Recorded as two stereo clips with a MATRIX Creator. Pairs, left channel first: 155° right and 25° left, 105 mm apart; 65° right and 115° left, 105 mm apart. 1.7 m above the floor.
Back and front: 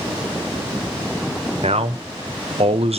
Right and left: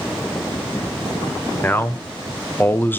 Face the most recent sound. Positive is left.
turn(degrees=5)